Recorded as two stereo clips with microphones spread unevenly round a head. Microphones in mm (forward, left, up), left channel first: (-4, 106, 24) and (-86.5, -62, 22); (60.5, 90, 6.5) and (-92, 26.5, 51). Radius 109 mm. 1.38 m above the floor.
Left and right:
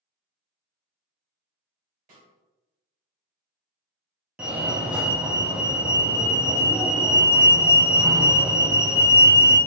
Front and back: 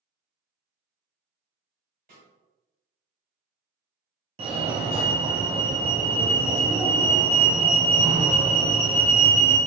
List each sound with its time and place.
2.1 s a snare drum: 150° right, 1.7 m
4.4 s a fire alarm: 170° left, 0.7 m